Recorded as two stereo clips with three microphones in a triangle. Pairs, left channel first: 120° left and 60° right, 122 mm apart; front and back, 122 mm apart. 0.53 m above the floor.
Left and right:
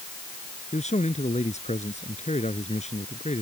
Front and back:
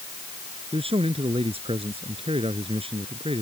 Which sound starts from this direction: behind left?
A man speaking, at 0.7 s.